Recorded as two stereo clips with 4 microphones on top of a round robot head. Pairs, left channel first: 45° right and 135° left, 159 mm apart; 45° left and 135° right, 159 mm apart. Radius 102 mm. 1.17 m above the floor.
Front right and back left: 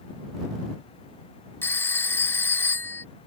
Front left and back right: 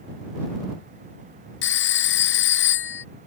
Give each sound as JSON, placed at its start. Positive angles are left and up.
{"t": 1.6, "sound": "a phone ringing", "azimuth_deg": 35}